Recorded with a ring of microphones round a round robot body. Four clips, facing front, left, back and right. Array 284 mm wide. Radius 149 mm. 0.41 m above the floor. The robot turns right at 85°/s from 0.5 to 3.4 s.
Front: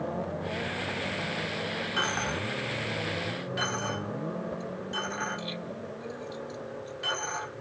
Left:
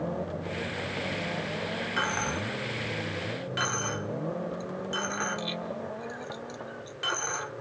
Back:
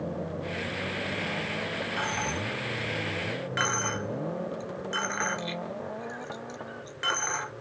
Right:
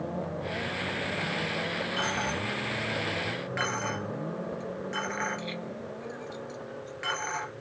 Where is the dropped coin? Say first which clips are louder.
Left 2 dB, front 2 dB; 40° left, 1.6 m; by 7.5 s 165° left, 1.6 m.